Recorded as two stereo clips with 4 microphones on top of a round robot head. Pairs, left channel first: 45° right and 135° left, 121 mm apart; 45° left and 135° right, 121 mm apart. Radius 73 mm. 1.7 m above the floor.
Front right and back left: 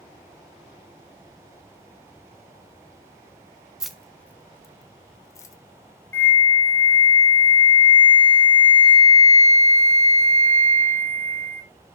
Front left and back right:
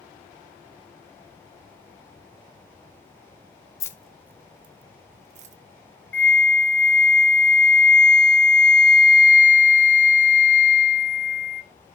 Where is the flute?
10° right, 1.1 m.